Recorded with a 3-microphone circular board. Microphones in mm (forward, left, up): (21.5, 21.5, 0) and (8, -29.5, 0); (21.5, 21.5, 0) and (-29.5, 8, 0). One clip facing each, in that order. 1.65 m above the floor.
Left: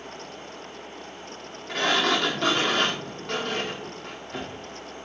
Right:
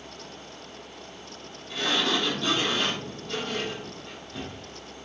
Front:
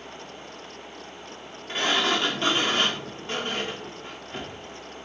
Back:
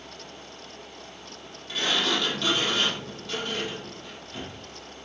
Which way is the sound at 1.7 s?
70° left.